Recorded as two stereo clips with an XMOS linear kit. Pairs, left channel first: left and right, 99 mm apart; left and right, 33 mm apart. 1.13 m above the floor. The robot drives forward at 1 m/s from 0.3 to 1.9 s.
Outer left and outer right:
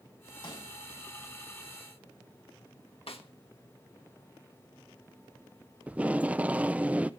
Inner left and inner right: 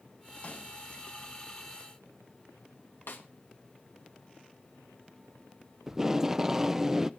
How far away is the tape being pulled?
About 0.6 m.